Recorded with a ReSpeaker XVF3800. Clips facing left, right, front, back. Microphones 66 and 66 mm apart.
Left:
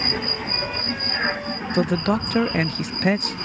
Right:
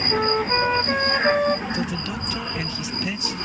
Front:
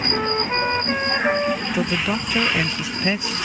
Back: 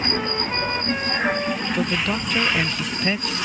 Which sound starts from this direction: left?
A man speaking, at 1.7 s.